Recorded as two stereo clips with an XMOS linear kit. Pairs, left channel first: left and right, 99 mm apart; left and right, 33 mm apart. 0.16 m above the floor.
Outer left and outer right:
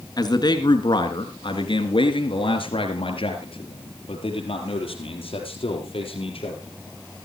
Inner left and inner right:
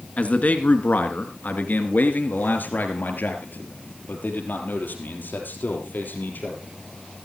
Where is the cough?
No cough in this recording.